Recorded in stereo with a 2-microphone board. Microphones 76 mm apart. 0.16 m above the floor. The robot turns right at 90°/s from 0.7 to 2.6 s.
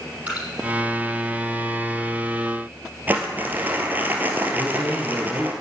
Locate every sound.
0.3 s dripping: 20° right (ahead or behind), 6 m
3.1 s crumpling: 25° right (ahead or behind), 2.0 m
4.5 s a man speaking: 5° left (ahead or behind), 2 m